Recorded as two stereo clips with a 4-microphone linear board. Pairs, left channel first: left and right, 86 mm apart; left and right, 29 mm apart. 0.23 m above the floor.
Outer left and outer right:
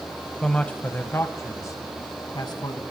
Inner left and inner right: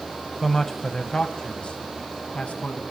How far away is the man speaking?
About 1.1 m.